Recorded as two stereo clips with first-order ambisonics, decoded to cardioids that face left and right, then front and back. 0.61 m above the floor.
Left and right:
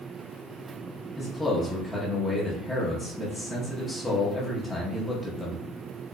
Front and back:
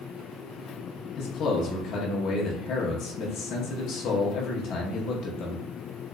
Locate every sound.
1.2 s a man speaking: 15° left, 0.7 m